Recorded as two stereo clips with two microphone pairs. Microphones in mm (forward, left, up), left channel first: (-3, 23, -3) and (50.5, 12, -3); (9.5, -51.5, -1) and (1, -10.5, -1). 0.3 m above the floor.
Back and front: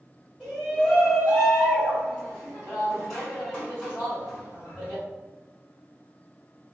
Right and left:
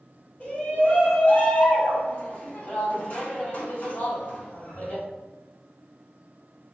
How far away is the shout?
About 1.9 m.